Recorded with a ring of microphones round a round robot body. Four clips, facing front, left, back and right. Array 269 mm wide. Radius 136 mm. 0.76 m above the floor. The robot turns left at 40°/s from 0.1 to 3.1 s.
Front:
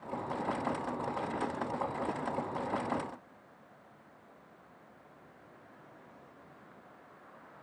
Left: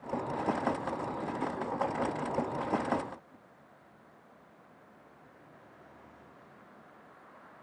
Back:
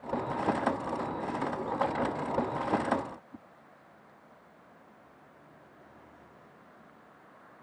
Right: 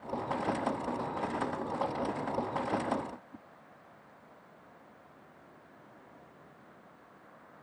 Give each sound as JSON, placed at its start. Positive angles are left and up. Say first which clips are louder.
{"t": 3.3, "sound": "a whoosh", "louder": "right 6 dB, back 9 dB", "azimuth_deg": -155}